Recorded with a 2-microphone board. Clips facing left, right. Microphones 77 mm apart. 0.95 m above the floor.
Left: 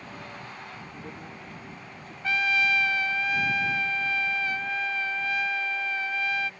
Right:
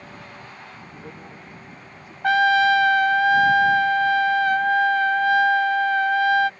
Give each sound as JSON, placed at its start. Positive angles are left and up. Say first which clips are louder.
{"t": 0.9, "sound": "a man speaking", "louder": "right 1 dB", "side_deg": -15}
{"t": 2.2, "sound": "a trumpet", "louder": "right 10 dB", "side_deg": -70}